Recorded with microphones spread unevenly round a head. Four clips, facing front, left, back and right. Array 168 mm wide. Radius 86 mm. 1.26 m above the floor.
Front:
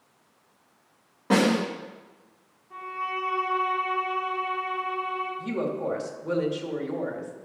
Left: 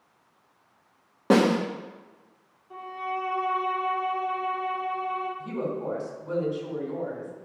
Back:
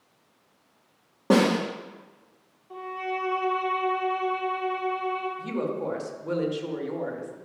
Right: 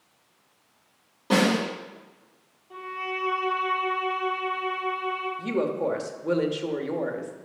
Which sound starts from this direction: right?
A woman speaking, at 5.4 s.